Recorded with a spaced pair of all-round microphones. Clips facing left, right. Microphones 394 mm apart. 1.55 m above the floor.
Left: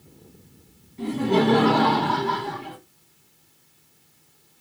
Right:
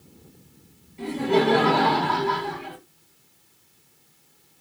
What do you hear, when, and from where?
1.0 s laughter: 30° left (ahead or behind), 2.5 m